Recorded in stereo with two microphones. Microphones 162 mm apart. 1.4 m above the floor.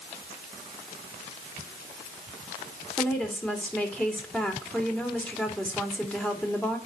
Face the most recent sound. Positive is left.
turn(degrees=10)  # may be behind; listen again after turning